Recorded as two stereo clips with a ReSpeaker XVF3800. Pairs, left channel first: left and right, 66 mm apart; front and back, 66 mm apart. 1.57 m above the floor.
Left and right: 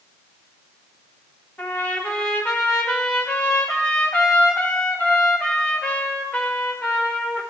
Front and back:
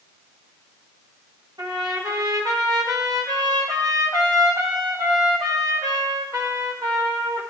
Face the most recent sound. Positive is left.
turn(degrees=160)